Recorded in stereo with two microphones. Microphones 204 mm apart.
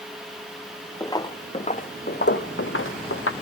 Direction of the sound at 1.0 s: 15° left (ahead or behind).